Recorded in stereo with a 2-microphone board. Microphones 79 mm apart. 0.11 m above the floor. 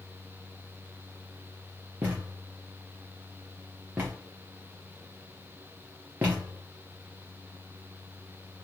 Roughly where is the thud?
Right.